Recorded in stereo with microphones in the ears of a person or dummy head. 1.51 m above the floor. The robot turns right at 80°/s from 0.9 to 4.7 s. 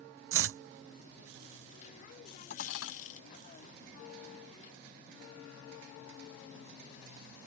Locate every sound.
0.3 s chopping: 60° right (ahead or behind)
2.5 s dishes clattering: 45° left; by 2.9 s 80° left